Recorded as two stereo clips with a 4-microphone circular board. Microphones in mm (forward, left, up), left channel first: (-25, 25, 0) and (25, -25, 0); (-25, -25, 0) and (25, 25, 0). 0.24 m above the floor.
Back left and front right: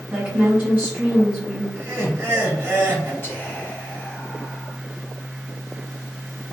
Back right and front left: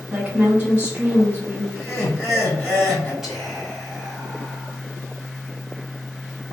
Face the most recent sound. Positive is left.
turn(degrees=125)